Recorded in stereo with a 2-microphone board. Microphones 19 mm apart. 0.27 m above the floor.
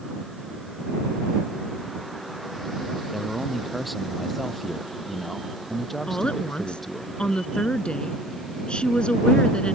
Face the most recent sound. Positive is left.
turn(degrees=70)  # may be behind; listen again after turning